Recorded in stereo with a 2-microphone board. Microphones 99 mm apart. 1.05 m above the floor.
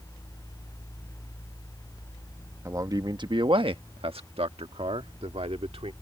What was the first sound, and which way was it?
A man speaking, 30° right (ahead or behind).